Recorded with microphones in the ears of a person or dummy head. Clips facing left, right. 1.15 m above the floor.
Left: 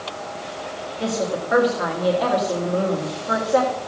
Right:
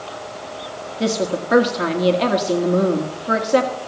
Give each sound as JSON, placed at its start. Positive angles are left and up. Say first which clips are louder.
{"t": 1.0, "sound": "a woman speaking", "louder": "right 3 dB", "side_deg": -30, "distance_m": 1.3}